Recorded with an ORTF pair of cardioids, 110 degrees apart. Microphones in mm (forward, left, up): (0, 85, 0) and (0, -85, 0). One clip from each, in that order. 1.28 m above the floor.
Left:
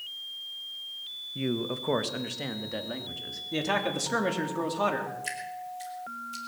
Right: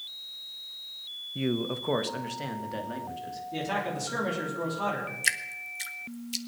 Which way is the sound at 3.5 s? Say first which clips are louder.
Left 3 dB; 40° left.